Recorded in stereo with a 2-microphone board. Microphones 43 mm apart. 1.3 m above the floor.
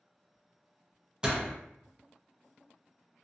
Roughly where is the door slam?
Right.